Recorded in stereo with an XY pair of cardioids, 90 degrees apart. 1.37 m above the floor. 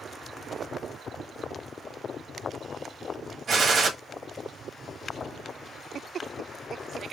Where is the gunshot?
50° right, 1.5 m.